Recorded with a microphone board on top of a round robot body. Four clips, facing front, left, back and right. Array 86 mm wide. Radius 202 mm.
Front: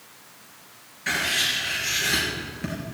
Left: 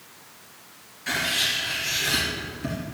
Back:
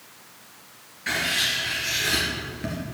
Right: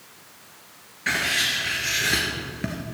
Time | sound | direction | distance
1.1 | writing | 85° right | 3.5 m